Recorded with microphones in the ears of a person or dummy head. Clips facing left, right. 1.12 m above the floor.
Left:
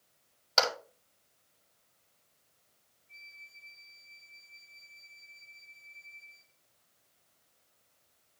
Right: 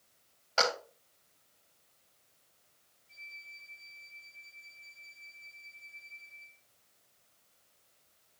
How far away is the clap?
About 6 m.